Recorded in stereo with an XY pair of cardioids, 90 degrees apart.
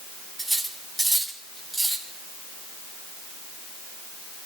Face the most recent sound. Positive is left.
turn(degrees=0)